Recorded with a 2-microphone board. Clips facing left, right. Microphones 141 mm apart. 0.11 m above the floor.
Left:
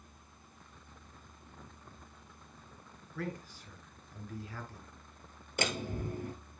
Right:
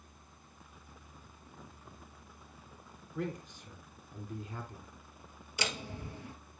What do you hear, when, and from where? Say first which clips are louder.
3.1 s a man speaking: right 2 dB; 20° right (ahead or behind), 1.5 m
5.6 s a door slam: left 4 dB; 50° left (ahead or behind), 1.3 m